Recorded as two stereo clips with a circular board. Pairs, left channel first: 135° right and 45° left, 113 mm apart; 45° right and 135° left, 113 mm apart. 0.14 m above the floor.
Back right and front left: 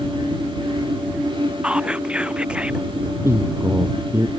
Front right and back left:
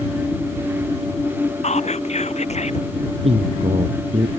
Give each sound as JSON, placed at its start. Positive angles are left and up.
{"t": 1.6, "sound": "whispering", "azimuth_deg": -35}
{"t": 3.2, "sound": "a man speaking", "azimuth_deg": 115}